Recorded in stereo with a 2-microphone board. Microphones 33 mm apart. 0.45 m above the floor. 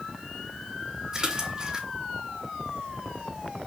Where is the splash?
25° right (ahead or behind), 1.9 m.